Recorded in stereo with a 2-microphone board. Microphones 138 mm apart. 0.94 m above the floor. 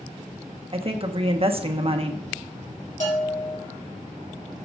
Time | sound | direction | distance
0.7 | a woman speaking | 45° right (ahead or behind) | 1.1 m
3.0 | a bell | 65° left (ahead or behind) | 3 m